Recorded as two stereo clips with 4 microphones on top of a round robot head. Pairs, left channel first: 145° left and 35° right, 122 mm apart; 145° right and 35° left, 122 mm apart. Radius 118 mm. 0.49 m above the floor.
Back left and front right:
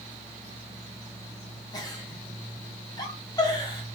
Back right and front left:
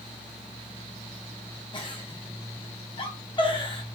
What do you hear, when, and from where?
1.7 s a giggle: 170° right, 1.4 m